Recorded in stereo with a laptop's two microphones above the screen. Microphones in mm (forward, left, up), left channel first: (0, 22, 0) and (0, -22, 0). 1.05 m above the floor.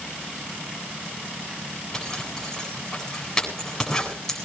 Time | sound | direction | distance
1.9 | a zipper | 10° left (ahead or behind) | 8.5 m